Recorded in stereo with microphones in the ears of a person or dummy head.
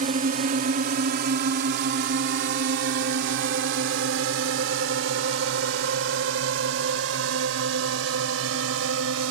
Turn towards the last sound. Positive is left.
turn(degrees=-80)